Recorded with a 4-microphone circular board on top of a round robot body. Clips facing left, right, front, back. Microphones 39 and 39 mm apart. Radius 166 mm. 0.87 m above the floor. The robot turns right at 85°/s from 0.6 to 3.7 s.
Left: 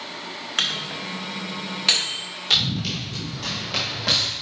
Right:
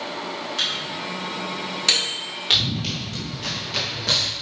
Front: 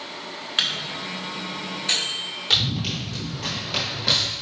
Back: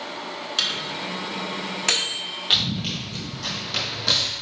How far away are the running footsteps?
About 1.2 m.